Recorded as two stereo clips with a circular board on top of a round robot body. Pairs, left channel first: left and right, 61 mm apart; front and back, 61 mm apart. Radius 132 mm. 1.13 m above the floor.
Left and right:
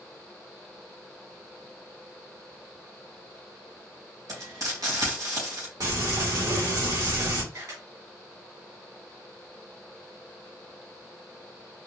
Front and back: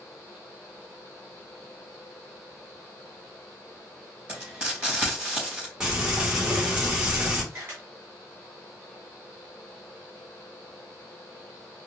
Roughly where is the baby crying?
I don't hear a baby crying.